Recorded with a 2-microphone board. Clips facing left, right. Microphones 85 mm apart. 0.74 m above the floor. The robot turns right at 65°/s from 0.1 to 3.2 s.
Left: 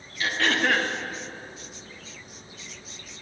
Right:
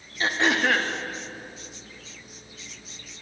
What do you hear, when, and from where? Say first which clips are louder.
0.2 s throat clearing: right 2 dB; 35° right, 0.6 m; by 0.9 s 15° left, 0.6 m